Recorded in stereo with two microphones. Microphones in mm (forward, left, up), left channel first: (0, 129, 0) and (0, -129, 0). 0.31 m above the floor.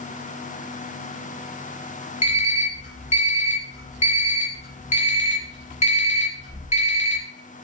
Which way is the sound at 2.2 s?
25° left (ahead or behind).